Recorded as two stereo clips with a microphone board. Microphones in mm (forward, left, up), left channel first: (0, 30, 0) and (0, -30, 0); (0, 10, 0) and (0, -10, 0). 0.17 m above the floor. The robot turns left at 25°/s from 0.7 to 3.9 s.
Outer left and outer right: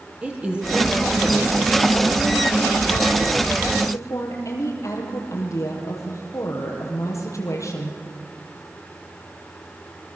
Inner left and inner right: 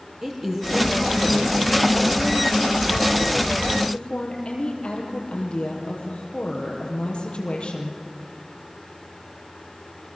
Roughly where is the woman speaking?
Behind.